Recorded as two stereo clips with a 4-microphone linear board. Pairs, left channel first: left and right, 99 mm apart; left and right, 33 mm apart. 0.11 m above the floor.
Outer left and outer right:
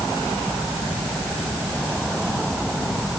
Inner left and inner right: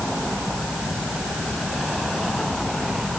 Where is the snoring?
No snoring in this recording.